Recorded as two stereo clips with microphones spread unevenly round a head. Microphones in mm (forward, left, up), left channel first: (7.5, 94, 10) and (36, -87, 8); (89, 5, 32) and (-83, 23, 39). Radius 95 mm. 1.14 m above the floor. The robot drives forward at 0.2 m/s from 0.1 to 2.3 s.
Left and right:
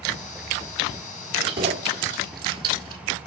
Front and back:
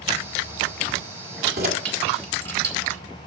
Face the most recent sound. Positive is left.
turn(degrees=-150)